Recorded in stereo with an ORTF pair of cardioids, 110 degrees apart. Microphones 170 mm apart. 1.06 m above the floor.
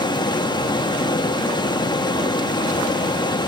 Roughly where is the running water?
Ahead left.